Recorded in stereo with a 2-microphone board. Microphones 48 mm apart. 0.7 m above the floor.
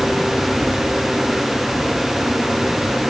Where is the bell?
No bell in this recording.